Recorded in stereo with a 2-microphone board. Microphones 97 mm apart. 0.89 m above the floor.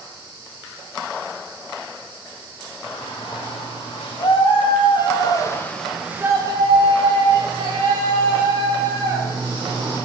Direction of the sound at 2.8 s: 75° left (ahead or behind).